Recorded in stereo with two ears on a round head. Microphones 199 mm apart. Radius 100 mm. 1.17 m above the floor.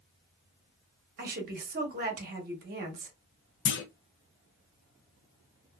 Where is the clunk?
55° left (ahead or behind), 0.5 m.